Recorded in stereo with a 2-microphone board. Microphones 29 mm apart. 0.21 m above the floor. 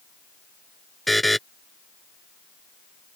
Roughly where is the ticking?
No ticking in this recording.